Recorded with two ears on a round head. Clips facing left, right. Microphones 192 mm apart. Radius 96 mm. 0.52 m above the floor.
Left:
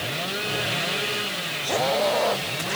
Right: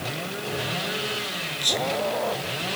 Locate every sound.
1.6 s whispering: 50° right (ahead or behind), 7.5 m